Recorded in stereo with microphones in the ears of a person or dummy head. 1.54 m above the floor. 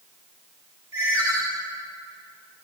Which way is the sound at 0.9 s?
20° right (ahead or behind).